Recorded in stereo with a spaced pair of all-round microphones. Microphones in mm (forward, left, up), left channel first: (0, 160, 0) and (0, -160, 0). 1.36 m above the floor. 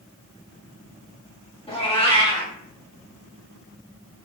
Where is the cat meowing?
15° left (ahead or behind), 0.9 m.